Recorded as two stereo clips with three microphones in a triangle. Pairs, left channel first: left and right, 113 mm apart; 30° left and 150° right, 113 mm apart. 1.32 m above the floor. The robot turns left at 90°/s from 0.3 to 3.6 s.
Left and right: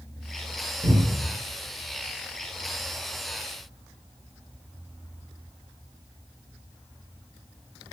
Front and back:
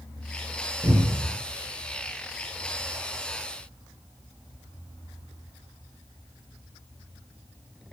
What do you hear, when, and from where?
0.8 s a cupboard door: 80° right, 0.9 m; by 1.3 s 125° right, 0.9 m